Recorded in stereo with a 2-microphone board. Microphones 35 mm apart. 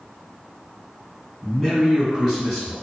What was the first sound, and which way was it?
A man speaking, 5° right (ahead or behind).